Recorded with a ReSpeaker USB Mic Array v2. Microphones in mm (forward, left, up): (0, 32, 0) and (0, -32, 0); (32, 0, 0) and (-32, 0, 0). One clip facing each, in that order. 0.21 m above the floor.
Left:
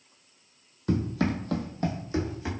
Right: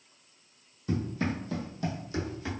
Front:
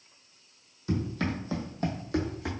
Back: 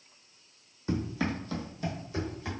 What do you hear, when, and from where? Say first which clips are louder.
0.9 s running footsteps: left 4 dB, even; 115° left, 0.7 m; by 2.5 s 15° left, 1.0 m